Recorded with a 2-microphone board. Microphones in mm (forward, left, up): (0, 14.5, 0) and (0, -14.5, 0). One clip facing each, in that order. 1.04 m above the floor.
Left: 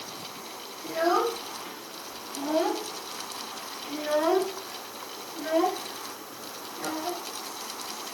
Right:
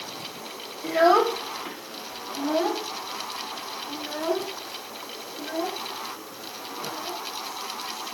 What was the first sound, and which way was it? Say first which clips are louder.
A child speaking: right 6 dB; 45° right (ahead or behind).